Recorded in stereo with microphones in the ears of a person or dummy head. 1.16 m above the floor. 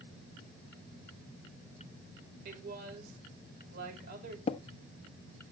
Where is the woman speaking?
60° right (ahead or behind), 5 m.